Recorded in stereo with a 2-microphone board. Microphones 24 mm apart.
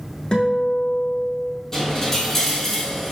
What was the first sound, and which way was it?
A guitar, 35° left (ahead or behind).